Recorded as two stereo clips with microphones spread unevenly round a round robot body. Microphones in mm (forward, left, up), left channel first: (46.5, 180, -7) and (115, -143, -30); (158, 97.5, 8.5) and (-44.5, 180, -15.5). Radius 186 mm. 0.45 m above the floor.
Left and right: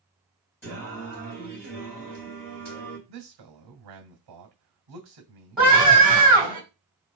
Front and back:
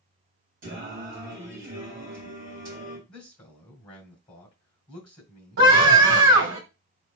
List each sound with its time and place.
0.6 s singing: 170° right, 1.9 m
3.1 s a man speaking: 95° right, 1.5 m
5.6 s a scream: 165° right, 2.5 m